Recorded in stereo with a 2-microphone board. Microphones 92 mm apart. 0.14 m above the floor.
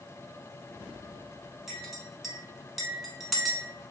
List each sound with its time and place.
1.7 s a clink: centre (ahead or behind), 0.9 m